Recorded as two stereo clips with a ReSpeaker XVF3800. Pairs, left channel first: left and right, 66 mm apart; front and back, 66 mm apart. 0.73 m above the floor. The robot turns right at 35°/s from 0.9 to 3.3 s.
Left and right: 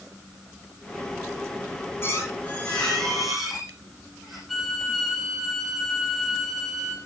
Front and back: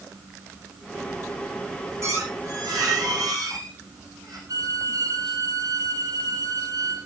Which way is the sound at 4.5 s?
Straight behind.